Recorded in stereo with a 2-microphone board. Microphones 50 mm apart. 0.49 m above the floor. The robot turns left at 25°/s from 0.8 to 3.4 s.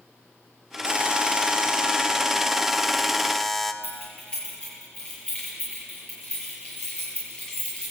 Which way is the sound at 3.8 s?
25° left (ahead or behind).